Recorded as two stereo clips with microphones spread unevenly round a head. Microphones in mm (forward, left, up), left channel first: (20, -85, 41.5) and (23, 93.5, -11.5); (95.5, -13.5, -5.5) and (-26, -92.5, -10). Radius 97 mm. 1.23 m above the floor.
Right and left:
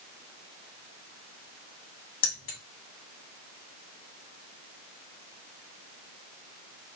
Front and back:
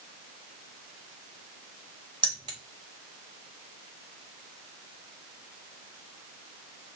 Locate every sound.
2.2 s keys jangling: 85° right, 2.5 m